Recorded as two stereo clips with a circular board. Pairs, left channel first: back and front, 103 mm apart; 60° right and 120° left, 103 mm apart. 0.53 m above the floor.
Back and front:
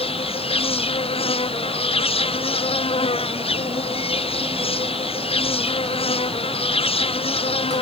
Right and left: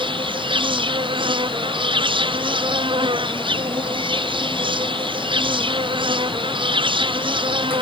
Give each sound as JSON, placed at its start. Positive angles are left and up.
{"t": 0.0, "sound": "an insect", "azimuth_deg": 155}